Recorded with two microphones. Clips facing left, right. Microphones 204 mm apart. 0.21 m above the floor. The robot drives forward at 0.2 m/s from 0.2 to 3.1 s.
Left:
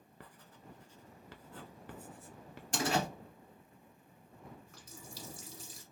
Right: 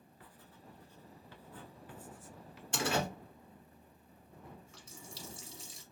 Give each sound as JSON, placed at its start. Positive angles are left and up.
{"t": 0.2, "sound": "writing", "side_deg": 70, "distance_m": 0.5}
{"t": 2.7, "sound": "a door slam", "side_deg": 40, "distance_m": 2.0}
{"t": 4.7, "sound": "a running tap", "side_deg": 60, "distance_m": 1.4}